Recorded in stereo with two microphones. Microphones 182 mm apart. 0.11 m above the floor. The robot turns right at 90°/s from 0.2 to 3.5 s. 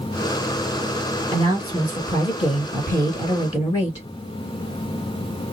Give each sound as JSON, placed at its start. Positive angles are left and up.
{"t": 1.3, "sound": "a woman speaking", "azimuth_deg": -45, "distance_m": 2.0}